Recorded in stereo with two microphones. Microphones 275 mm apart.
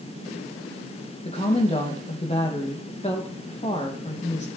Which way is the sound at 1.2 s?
25° left (ahead or behind).